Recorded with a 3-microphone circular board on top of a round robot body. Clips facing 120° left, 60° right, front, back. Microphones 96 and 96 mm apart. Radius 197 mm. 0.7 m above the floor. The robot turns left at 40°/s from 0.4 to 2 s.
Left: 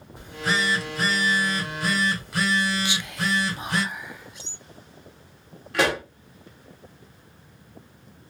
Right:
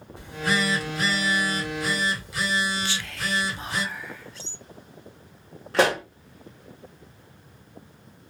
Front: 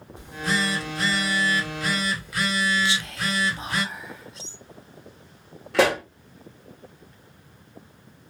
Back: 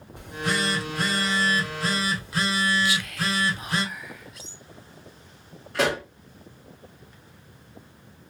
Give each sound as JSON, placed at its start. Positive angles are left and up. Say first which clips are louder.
{"t": 0.2, "sound": "a phone buzzing", "louder": "even, front 1 dB", "azimuth_deg": -175, "distance_m": 1.6}
{"t": 2.9, "sound": "whispering", "louder": "left 3 dB, even", "azimuth_deg": 50, "distance_m": 0.6}
{"t": 5.7, "sound": "a pop", "louder": "right 2 dB, front 4 dB", "azimuth_deg": -5, "distance_m": 0.8}